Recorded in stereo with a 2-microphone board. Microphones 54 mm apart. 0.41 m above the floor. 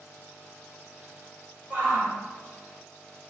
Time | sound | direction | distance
1.7 | a shout | 35° right (ahead or behind) | 1.8 m